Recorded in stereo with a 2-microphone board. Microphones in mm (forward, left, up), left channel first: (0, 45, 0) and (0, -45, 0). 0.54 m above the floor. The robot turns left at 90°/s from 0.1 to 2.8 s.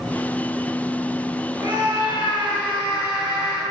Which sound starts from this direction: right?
A scream, at 1.6 s.